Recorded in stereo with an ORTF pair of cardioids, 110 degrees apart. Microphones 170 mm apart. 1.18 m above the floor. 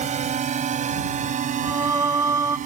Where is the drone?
45° right; by 2.7 s 50° right.